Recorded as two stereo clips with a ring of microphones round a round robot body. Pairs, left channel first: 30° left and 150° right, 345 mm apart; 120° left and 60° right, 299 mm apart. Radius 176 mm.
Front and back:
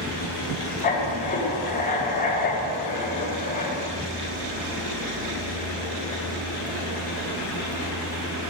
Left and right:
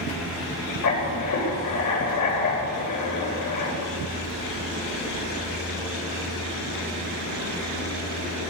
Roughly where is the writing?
Left.